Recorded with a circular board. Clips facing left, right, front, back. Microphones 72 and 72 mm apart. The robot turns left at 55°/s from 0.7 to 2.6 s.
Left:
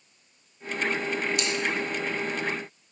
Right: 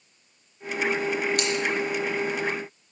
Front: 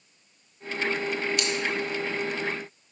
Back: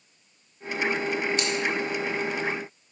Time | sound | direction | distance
1.4 | scissors | 125° right | 1.2 m